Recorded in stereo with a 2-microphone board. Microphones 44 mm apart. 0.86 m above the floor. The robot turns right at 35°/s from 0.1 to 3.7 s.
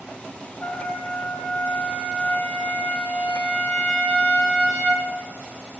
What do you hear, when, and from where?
0.6 s a trumpet: 70° left, 0.8 m; by 5.1 s straight behind, 0.8 m